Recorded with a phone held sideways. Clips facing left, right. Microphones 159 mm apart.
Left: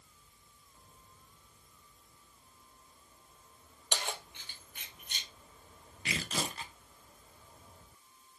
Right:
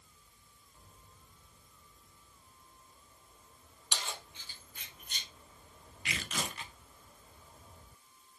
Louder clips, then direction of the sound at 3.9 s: Left 4 dB; 65° left (ahead or behind).